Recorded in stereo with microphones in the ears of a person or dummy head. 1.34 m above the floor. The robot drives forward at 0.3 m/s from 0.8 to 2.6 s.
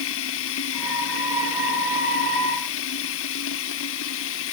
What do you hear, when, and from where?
0.0 s running water: 80° left